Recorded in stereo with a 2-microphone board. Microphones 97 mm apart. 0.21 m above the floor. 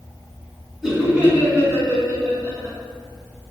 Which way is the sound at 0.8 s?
Centre (ahead or behind).